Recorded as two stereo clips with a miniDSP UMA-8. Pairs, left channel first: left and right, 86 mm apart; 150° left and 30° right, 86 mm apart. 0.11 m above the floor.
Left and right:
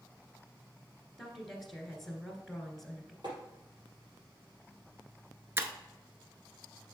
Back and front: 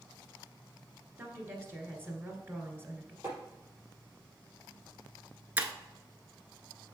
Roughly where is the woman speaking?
Ahead.